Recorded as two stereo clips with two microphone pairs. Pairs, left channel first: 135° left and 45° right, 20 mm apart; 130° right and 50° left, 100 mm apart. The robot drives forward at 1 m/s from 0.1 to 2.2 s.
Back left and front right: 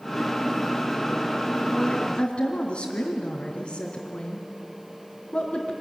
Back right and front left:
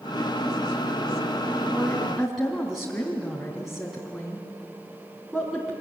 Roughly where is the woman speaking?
Behind left.